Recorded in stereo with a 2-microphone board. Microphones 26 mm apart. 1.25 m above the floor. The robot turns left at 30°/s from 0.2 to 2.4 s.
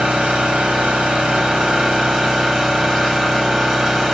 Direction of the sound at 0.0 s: 90° right.